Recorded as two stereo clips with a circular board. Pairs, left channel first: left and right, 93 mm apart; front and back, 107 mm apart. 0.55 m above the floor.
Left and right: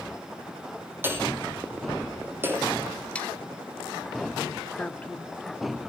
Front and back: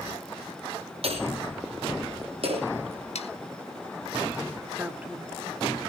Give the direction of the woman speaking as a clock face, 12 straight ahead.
8 o'clock.